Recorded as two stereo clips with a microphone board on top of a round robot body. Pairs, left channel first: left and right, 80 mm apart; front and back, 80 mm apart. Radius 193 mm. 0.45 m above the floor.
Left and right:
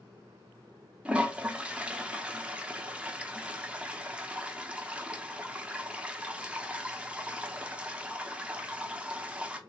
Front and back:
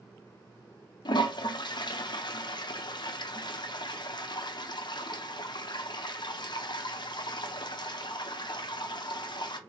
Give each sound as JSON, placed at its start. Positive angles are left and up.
{"t": 1.1, "sound": "a toilet flushing", "azimuth_deg": -15, "distance_m": 0.7}